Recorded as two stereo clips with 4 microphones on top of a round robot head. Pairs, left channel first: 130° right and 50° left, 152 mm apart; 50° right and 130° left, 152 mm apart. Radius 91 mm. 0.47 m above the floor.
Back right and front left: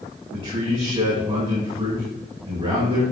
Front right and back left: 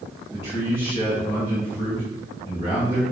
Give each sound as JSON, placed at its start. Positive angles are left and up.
{"t": 0.3, "sound": "a man speaking", "azimuth_deg": 0, "distance_m": 4.0}